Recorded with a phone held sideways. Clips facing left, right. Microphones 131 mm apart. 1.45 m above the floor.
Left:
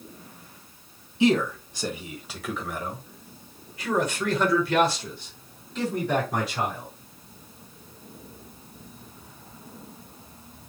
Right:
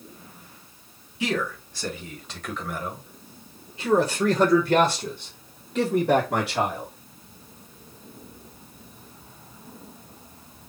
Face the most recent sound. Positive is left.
turn(degrees=-80)